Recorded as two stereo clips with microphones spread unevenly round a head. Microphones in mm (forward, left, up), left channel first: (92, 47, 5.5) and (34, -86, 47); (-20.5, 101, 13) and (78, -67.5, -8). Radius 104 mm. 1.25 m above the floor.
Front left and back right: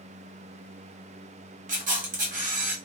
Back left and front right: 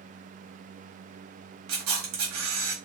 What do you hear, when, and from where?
1.7 s a camera shutter: 80° right, 1.0 m